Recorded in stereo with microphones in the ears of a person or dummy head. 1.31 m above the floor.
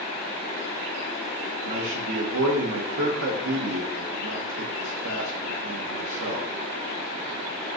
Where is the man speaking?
80° right, 0.8 m.